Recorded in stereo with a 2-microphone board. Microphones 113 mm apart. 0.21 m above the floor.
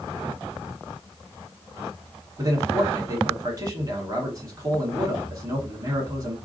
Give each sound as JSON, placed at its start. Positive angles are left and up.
{"t": 2.4, "sound": "a man speaking", "side_deg": -35, "distance_m": 2.0}